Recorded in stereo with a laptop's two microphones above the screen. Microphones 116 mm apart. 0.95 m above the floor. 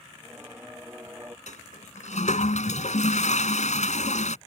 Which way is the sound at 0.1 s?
20° right (ahead or behind).